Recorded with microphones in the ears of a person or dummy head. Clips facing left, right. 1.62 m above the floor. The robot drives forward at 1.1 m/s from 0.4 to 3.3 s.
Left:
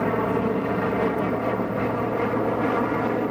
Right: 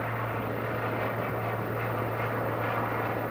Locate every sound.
0.0 s an aircraft: 65° left (ahead or behind); by 3.3 s 60° left (ahead or behind)